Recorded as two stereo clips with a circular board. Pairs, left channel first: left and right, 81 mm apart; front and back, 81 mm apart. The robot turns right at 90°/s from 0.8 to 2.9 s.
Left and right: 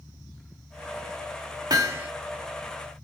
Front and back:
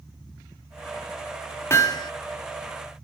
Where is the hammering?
55° right, 2.5 m; by 2.1 s 20° right, 2.5 m.